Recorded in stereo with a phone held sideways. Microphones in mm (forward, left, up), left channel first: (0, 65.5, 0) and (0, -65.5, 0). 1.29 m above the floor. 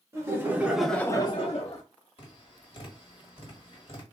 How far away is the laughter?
About 1.3 m.